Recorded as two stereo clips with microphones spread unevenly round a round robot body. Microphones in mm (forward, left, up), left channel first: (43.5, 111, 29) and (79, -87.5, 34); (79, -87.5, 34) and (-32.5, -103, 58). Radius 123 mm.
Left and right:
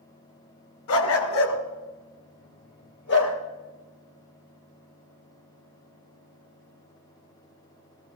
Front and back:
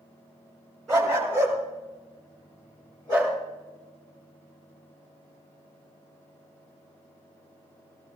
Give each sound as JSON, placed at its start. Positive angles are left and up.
{"t": 0.9, "sound": "a dog barking", "azimuth_deg": 100, "distance_m": 1.5}